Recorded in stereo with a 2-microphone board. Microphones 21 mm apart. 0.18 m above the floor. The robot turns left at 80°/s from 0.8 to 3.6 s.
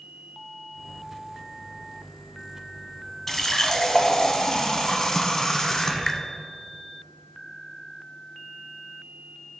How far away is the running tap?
About 0.8 m.